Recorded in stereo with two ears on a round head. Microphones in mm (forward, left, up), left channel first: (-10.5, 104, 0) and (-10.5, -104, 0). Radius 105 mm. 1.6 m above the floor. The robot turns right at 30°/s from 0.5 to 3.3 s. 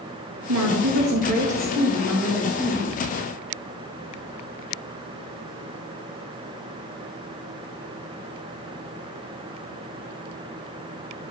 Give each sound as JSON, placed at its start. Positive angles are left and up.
{"t": 0.5, "sound": "a woman speaking", "azimuth_deg": -60, "distance_m": 2.5}